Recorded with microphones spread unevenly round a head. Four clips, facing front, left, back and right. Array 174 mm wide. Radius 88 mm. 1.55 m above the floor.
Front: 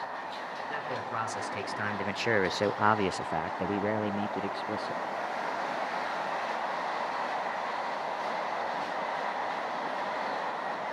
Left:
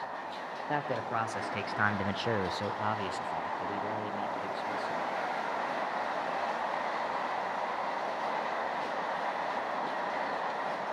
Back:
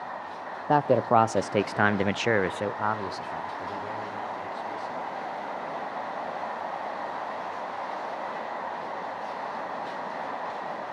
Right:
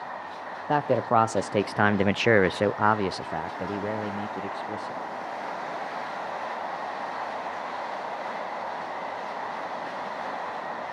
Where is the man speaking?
155° right, 0.9 m; by 5.0 s 25° right, 1.6 m.